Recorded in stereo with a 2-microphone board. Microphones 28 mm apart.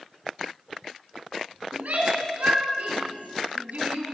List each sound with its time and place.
1.7 s a shout: 80° right, 7 m; by 4.0 s 70° right (ahead or behind), 5.5 m